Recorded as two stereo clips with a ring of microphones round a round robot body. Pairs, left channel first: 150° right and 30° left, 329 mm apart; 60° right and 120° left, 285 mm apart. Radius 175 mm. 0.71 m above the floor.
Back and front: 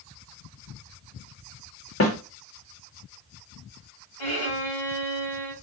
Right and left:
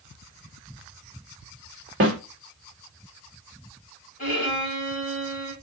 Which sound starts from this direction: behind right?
A violin, at 4.2 s.